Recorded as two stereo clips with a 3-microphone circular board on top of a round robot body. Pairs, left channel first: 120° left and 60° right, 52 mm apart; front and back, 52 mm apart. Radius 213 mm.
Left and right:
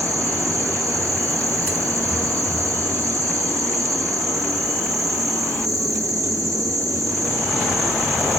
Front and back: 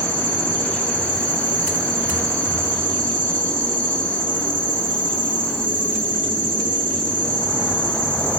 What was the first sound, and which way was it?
An insect, 60° right.